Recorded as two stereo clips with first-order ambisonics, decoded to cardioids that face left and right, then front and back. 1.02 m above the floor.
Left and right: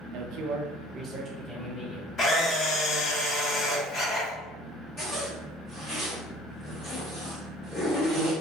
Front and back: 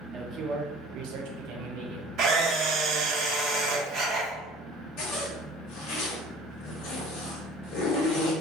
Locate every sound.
0.1 s a man speaking: 105° right, 0.5 m; by 2.1 s 170° left, 0.9 m
2.2 s a camera shutter: 140° left, 0.7 m
5.0 s a zipper: 15° left, 1.0 m